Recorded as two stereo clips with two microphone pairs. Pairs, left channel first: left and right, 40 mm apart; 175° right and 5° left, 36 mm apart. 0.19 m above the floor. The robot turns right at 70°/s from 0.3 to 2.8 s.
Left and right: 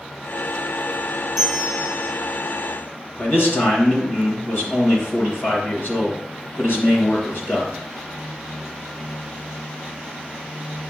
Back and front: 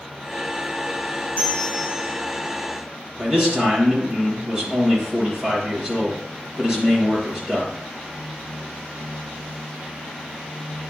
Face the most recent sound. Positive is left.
turn(degrees=75)